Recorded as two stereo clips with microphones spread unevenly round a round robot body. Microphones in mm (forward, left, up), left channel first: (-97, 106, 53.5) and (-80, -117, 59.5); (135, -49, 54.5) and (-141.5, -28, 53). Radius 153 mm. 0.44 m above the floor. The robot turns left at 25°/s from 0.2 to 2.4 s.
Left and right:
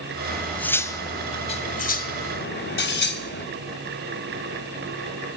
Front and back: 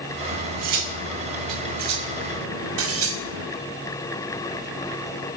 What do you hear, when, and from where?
0.3 s cutlery clinking: 175° right, 1.8 m; by 3.5 s 135° left, 1.8 m